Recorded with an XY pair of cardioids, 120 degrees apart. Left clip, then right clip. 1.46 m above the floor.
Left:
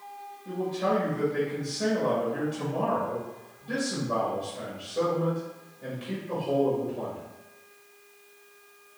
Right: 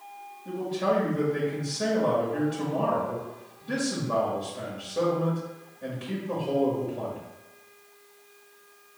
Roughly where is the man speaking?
Ahead.